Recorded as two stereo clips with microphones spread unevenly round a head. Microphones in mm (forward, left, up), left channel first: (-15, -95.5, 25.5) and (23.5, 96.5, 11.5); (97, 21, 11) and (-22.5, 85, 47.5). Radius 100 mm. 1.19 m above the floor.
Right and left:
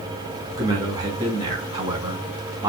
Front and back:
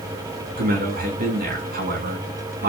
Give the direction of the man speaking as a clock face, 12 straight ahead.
7 o'clock.